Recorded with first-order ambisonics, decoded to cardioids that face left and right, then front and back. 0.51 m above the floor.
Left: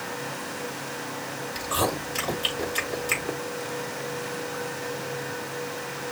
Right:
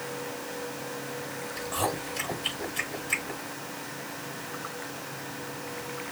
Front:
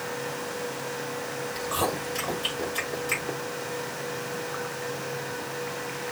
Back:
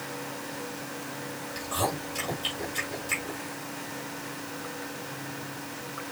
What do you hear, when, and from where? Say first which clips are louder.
1.6 s chewing: left 4 dB, front 1 dB; 85° left, 4 m